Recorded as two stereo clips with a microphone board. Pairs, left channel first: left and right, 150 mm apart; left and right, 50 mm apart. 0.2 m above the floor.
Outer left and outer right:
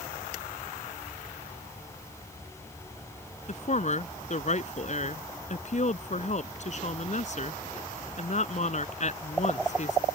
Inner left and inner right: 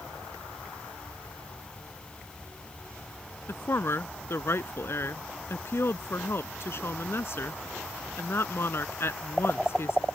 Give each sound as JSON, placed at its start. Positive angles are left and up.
{"t": 3.5, "sound": "a woman speaking", "side_deg": 55}